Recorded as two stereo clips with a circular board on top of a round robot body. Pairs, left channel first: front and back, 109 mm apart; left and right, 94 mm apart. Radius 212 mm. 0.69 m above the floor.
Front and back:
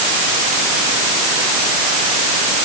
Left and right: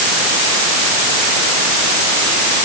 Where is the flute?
No flute in this recording.